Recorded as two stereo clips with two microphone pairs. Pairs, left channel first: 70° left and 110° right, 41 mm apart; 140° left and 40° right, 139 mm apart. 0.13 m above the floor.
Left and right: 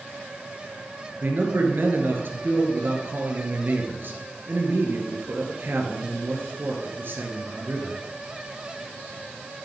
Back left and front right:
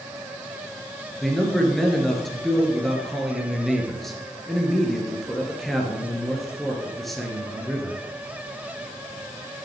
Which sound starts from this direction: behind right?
A man speaking, at 1.2 s.